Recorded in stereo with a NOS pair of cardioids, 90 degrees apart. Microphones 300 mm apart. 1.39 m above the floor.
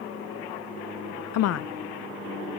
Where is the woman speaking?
60° left, 0.5 m.